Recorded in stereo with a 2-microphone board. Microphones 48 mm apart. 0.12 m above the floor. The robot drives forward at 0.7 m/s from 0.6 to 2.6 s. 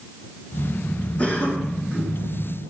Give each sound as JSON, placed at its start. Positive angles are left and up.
{"t": 1.2, "sound": "a cough", "side_deg": 30, "distance_m": 1.6}